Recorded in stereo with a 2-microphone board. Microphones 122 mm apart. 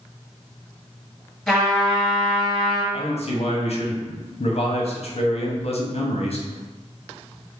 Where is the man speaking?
60° left (ahead or behind), 0.7 m.